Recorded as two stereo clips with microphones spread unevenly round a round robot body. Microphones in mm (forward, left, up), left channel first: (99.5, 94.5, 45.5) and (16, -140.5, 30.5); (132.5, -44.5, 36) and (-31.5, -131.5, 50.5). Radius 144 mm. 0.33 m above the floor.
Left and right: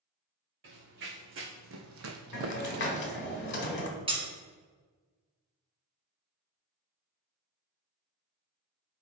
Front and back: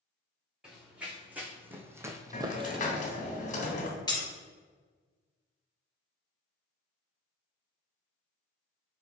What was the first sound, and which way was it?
Running footsteps, 70° right.